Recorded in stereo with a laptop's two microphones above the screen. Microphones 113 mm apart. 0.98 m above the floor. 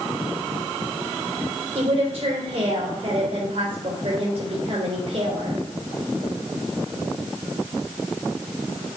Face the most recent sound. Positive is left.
turn(degrees=-65)  # may be behind; listen again after turning